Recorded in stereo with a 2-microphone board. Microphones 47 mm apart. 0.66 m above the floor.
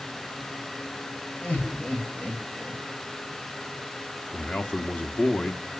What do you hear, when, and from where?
1.4 s laughter: 30° left (ahead or behind), 4 m
4.3 s a man speaking: 35° left (ahead or behind), 1.4 m